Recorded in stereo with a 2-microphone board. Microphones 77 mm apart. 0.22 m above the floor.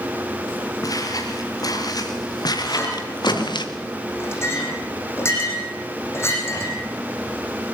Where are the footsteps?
50° left (ahead or behind), 5.5 m; by 3.7 s 80° left, 2.0 m.